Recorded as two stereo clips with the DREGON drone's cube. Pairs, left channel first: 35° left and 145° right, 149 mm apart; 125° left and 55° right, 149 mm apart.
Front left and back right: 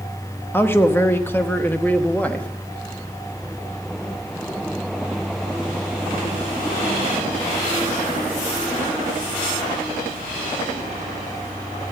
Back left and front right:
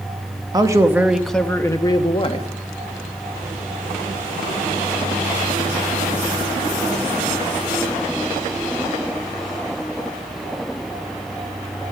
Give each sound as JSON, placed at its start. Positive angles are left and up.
{"t": 0.5, "sound": "a man speaking", "azimuth_deg": -25, "distance_m": 1.0}